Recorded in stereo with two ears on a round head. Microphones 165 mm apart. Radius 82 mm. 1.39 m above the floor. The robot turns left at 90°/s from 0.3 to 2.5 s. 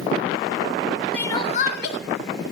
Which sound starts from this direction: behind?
Crying, at 1.1 s.